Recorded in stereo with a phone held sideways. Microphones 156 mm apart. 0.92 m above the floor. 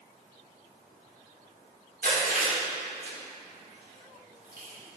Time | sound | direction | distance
2.0 | chewing | 80° right | 2 m